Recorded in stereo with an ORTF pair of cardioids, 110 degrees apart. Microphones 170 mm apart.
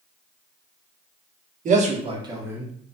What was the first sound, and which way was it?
A man speaking, 50° right.